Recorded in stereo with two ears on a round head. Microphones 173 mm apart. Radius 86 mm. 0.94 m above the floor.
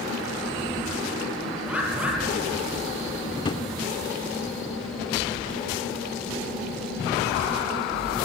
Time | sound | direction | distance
1.7 | a bird | 5° right (ahead or behind) | 4.5 m
3.4 | a drawer | 25° left (ahead or behind) | 1.3 m